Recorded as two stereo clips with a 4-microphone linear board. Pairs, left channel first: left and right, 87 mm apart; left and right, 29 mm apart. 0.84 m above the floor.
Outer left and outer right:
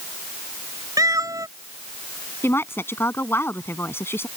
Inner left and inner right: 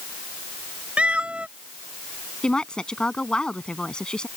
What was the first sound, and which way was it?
A cat meowing, 40° right (ahead or behind).